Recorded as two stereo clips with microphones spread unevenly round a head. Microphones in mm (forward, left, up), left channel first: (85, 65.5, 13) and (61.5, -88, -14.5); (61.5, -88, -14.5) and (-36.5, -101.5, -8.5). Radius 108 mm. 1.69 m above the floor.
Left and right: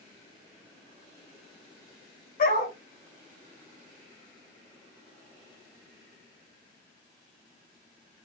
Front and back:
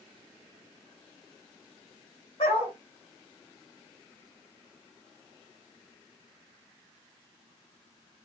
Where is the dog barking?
65° left, 5 m.